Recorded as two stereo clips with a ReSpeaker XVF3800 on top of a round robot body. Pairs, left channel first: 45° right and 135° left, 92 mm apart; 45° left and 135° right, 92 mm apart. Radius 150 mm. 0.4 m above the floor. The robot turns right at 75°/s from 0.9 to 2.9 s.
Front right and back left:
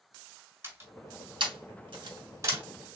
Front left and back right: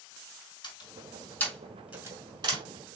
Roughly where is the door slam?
Left.